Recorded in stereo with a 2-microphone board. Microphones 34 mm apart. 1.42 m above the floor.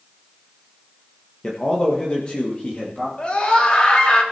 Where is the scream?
35° left (ahead or behind), 4 m.